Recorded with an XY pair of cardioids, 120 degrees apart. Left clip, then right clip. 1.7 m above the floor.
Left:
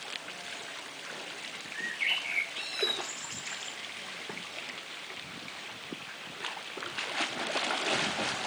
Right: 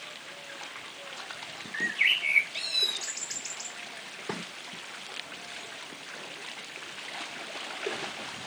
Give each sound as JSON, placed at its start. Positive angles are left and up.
{"t": 1.7, "sound": "a bird", "azimuth_deg": -70, "distance_m": 2.0}